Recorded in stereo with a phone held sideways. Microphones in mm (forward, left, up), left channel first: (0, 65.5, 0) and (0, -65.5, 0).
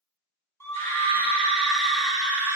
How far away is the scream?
About 3 m.